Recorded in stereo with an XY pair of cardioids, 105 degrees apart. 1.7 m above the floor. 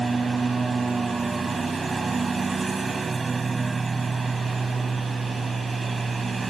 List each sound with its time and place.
0.0 s a lawn mower: 25° right